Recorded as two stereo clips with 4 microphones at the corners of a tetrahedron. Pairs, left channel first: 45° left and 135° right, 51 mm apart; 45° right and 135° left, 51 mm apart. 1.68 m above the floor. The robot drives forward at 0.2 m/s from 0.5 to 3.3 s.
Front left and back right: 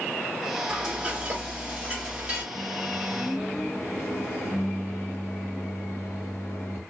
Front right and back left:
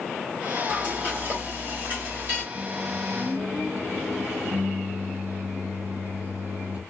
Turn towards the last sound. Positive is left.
turn(degrees=75)